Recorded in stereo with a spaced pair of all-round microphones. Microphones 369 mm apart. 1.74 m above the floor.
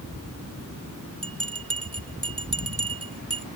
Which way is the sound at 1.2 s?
40° right (ahead or behind).